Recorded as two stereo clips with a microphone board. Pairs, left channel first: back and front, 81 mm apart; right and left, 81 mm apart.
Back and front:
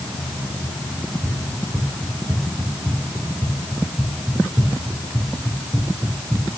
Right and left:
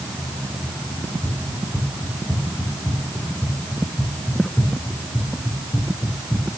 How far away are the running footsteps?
About 7.5 m.